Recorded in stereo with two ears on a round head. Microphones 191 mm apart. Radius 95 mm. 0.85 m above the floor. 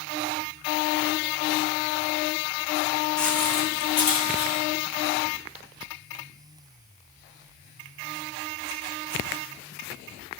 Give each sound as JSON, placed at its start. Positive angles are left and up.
{"t": 3.2, "sound": "footsteps", "side_deg": 5, "distance_m": 2.5}